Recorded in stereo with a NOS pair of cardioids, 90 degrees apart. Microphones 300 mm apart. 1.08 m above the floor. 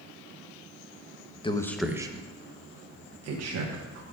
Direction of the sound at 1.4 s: 15° left.